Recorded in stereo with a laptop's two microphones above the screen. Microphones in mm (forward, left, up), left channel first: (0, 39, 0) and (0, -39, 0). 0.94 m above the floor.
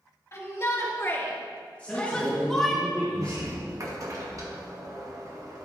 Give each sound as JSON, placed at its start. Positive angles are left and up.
{"t": 0.3, "sound": "a shout", "side_deg": 40, "distance_m": 2.5}
{"t": 1.8, "sound": "a man speaking", "side_deg": 15, "distance_m": 3.0}
{"t": 3.1, "sound": "a sliding door", "side_deg": -45, "distance_m": 1.0}